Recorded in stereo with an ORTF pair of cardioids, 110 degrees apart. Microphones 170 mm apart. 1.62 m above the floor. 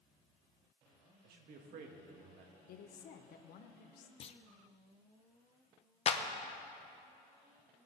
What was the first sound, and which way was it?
A man speaking, 70° right.